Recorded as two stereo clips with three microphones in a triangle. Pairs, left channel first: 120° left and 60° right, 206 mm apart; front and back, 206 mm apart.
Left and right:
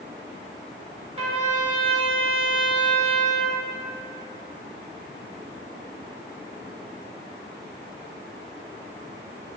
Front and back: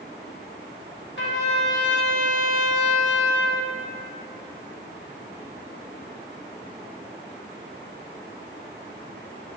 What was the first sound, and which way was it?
A trumpet, straight ahead.